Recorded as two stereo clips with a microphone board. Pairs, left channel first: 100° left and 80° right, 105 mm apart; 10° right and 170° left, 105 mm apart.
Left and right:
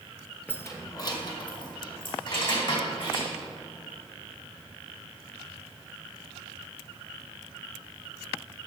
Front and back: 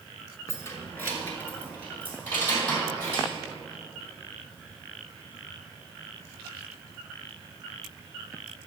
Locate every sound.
0.5 s keys jangling: 35° left, 1.1 m; by 3.3 s 65° left, 4.5 m